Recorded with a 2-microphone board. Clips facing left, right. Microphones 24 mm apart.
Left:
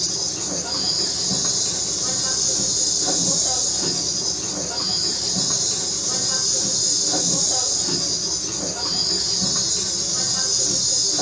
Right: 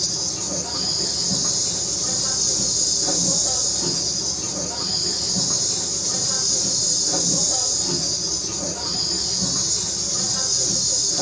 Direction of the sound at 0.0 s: 25° left (ahead or behind).